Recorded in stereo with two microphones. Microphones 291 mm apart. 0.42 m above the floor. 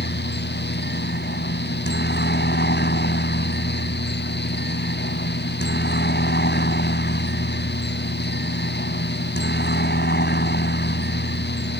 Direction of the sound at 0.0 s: 35° left (ahead or behind).